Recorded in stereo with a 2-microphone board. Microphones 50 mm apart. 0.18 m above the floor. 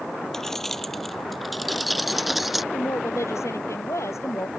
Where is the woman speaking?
70° left (ahead or behind).